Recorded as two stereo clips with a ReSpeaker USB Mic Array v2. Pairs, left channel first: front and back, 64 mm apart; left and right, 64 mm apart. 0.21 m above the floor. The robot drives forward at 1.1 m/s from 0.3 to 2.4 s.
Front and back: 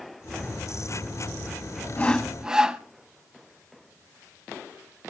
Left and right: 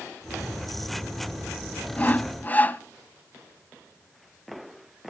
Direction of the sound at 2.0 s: 45° left.